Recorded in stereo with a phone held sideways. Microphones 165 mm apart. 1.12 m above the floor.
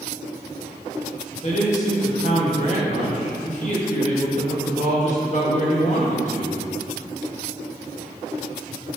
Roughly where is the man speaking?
Left.